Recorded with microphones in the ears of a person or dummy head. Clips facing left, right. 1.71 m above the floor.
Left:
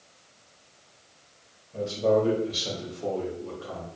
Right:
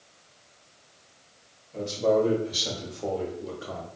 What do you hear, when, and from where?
1.7 s a man speaking: 5° left (ahead or behind), 1.7 m; by 3.9 s 35° right (ahead or behind), 0.8 m